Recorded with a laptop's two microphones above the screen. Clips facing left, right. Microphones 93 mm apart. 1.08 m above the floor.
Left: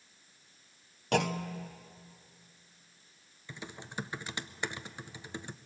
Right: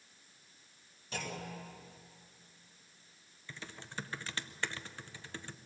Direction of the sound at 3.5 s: 15° left (ahead or behind).